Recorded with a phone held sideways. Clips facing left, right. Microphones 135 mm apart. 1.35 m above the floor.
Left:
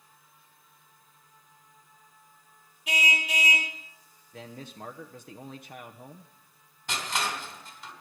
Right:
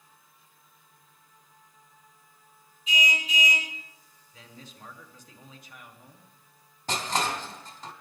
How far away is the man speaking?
About 1.0 m.